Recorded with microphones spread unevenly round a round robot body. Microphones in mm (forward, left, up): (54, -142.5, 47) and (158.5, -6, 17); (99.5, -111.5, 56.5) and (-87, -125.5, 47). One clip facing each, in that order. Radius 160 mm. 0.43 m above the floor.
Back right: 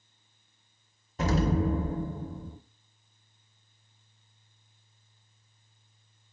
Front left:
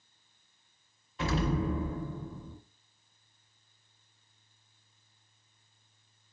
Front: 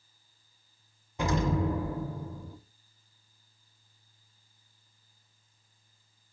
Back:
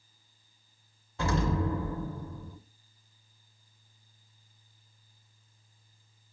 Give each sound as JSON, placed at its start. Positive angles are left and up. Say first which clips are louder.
{"t": 1.2, "sound": "an explosion", "louder": "back right 4 dB, front 1 dB", "azimuth_deg": -70, "distance_m": 0.7}